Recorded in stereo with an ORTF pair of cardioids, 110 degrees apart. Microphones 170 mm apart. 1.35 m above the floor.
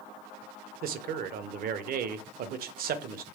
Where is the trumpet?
I don't hear a trumpet.